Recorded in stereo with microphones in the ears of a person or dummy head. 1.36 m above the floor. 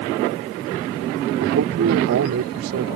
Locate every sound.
1.4 s a man speaking: 75° right (ahead or behind)